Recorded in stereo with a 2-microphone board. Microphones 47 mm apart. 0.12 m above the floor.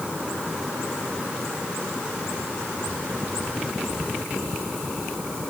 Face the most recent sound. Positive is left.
No sound to turn to.